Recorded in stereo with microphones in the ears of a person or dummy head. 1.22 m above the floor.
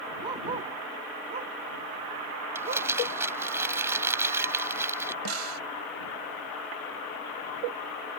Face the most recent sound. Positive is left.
turn(degrees=-80)